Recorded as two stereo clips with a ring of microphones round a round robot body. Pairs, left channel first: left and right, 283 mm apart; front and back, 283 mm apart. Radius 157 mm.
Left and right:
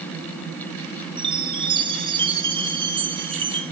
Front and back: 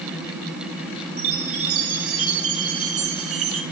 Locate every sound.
1.2 s a chime: 160° right, 2.5 m